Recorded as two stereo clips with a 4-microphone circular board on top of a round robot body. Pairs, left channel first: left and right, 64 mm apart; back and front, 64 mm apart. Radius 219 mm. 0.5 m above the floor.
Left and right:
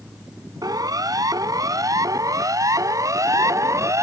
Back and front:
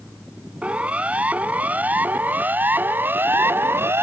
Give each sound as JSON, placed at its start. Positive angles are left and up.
{"t": 0.6, "sound": "a siren", "azimuth_deg": -70}